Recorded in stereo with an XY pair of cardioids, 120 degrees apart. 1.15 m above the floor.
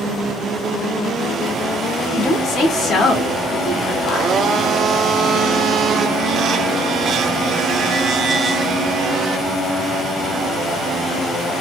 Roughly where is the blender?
Ahead right.